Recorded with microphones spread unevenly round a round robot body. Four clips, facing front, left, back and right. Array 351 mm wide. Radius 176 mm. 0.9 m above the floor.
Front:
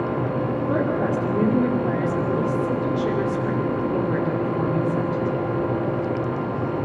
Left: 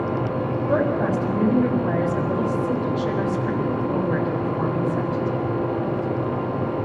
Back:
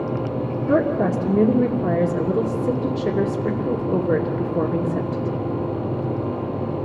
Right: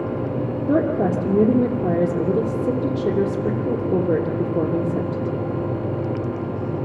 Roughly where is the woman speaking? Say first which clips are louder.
Right 3 dB, back 5 dB; behind right.